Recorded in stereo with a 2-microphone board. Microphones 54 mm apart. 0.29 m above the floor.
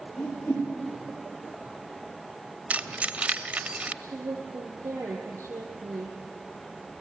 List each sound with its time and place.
0.2 s a whoosh: 75° left (ahead or behind), 7 m
2.7 s keys jangling: 25° right (ahead or behind), 0.7 m
4.0 s a woman speaking: 65° right (ahead or behind), 8 m